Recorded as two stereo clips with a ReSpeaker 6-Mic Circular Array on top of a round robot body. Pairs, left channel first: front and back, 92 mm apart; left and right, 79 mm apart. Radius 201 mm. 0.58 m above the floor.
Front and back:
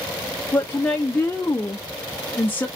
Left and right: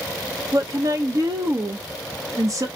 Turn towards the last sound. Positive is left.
turn(degrees=-65)